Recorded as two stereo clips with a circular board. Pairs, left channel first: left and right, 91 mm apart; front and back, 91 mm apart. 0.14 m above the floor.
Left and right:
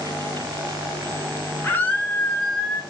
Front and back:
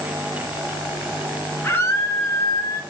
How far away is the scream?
About 1.2 m.